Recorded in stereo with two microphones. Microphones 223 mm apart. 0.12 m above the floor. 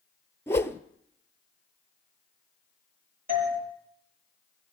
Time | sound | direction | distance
0.5 | a whoosh | 10° left (ahead or behind) | 0.7 m
3.3 | a doorbell | 40° right (ahead or behind) | 5 m